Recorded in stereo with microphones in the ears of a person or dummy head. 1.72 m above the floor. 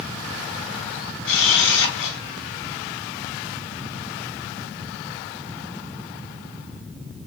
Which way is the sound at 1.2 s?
70° left (ahead or behind).